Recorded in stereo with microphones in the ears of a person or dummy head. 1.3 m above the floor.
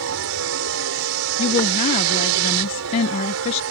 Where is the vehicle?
70° right (ahead or behind).